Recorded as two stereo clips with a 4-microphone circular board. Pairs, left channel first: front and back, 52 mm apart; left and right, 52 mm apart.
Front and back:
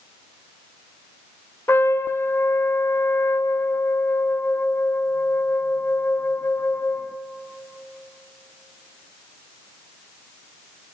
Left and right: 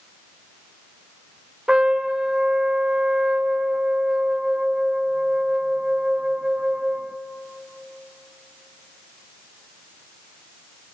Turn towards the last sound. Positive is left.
turn(degrees=-15)